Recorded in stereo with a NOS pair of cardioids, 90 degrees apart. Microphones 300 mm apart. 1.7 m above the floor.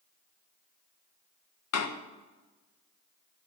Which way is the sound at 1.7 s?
60° left.